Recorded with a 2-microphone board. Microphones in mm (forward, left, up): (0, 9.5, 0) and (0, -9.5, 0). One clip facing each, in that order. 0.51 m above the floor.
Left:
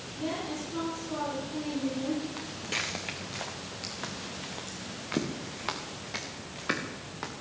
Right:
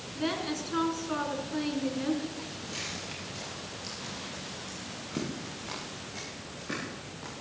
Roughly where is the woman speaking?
Right.